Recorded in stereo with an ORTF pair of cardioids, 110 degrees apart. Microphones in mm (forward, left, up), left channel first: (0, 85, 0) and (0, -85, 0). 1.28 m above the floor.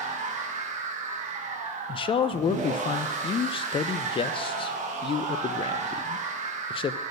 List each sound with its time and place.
0.0 s a machine running: 45° right, 1.3 m
1.9 s a man speaking: 35° left, 0.5 m